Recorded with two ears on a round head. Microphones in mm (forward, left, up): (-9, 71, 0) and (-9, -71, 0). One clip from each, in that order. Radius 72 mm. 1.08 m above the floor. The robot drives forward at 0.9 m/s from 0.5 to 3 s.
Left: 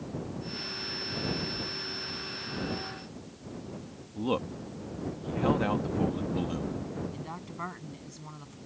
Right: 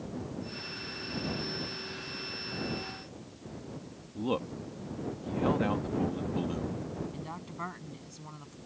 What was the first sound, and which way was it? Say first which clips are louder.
A man speaking: left 2 dB; 10° left (ahead or behind).